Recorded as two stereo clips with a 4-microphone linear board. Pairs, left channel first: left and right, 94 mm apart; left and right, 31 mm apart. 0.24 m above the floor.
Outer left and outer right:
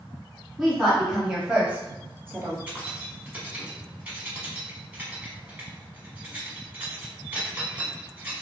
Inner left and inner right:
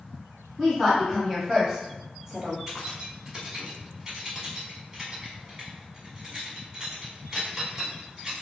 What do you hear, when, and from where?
0.6 s a woman speaking: centre (ahead or behind), 1.5 m; by 2.6 s 25° right (ahead or behind), 1.2 m
2.7 s keys jangling: 15° right (ahead or behind), 1.2 m